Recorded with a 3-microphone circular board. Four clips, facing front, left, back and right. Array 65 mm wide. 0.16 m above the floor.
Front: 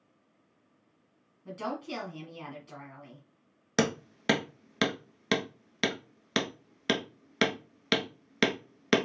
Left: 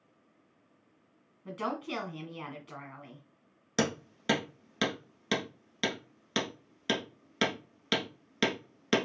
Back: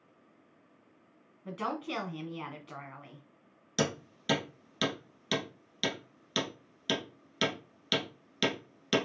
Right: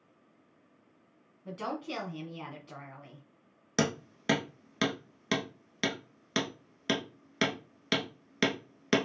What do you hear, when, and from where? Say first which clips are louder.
1.4 s a woman speaking: left 1 dB, back 1 dB; 150° left, 1.5 m
3.8 s hammering: even, front 4 dB; 10° right, 0.9 m